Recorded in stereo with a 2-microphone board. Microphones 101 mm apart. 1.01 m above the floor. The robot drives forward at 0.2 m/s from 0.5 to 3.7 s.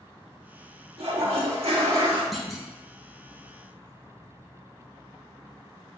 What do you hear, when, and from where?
1.0 s a toilet flushing: 80° right, 0.9 m; by 2.2 s 70° right (ahead or behind), 1.0 m
2.3 s a clunk: centre (ahead or behind), 0.6 m